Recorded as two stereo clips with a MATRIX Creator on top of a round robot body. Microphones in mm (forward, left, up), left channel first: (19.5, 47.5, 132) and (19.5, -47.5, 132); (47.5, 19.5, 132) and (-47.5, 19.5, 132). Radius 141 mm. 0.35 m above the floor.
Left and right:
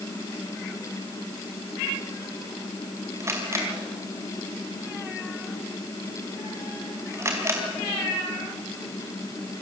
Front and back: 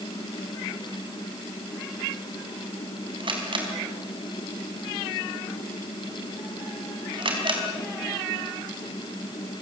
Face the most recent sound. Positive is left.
turn(degrees=-150)